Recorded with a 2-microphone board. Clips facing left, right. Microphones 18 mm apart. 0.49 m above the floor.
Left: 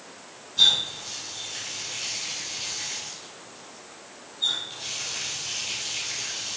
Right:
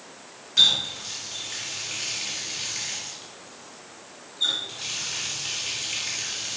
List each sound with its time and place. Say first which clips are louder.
0.6 s a running tap: right 1 dB; 60° right (ahead or behind), 4.5 m